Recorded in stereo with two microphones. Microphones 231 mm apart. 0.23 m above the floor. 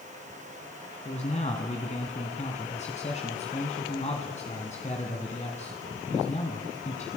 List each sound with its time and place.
1.1 s a man speaking: 30° left (ahead or behind), 2 m